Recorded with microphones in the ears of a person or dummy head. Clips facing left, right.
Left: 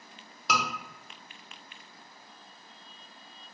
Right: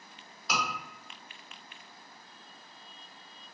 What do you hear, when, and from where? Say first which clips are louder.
0.5 s a scream: left 3 dB; 55° left (ahead or behind), 1.2 m